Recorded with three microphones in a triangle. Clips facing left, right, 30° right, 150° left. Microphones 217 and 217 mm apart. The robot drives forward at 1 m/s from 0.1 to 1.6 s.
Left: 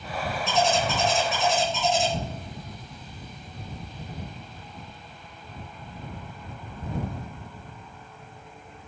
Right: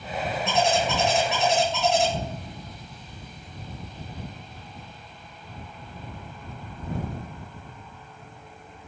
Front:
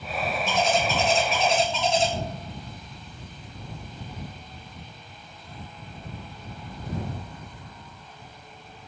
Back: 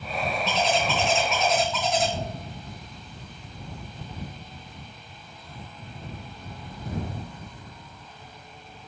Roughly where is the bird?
Ahead right.